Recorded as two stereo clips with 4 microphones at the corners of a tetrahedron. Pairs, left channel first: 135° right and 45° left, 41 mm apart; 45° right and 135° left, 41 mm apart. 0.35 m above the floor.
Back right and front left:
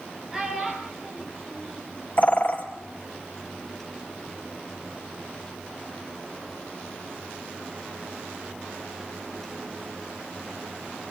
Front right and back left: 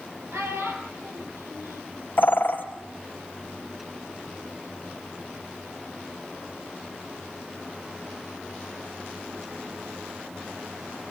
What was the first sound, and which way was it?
A child speaking, 125° left.